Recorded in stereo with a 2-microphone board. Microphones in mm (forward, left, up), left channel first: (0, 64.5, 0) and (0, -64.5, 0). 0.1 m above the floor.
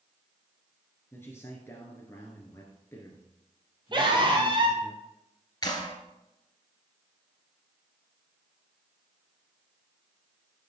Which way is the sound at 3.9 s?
40° right (ahead or behind).